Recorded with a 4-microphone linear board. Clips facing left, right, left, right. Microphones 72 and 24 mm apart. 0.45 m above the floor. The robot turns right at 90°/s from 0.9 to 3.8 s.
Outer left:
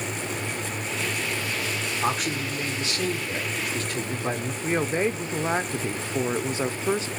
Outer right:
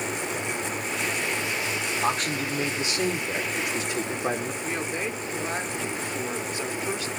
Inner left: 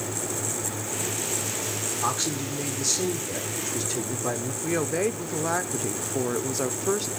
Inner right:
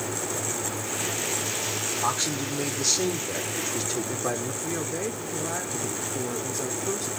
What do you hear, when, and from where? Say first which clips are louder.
2.0 s a man speaking: even, even; 10° left (ahead or behind), 1.3 m; by 4.5 s 15° right (ahead or behind), 1.3 m
4.6 s a woman speaking: outer left 5 dB, inner left 8 dB; 25° left (ahead or behind), 0.8 m